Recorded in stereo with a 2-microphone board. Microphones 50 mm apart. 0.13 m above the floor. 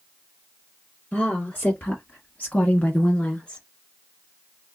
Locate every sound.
1.1 s a woman speaking: 25° left (ahead or behind), 1.9 m; by 3.6 s 20° left (ahead or behind), 1.9 m